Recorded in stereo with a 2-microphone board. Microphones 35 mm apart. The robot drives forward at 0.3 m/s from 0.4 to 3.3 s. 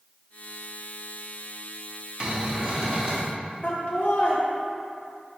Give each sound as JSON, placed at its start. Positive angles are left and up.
{"t": 2.2, "sound": "a cupboard door", "side_deg": -30, "distance_m": 0.9}
{"t": 3.6, "sound": "laughter", "side_deg": 45, "distance_m": 0.9}